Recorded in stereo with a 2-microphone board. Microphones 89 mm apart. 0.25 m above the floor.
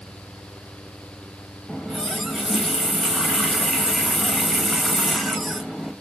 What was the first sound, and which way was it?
A running tap, centre (ahead or behind).